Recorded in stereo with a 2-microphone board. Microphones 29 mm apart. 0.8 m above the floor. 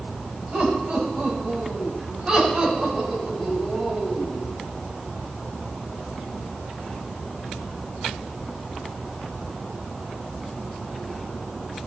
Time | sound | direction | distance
0.5 | laughter | 35° right (ahead or behind) | 5.5 m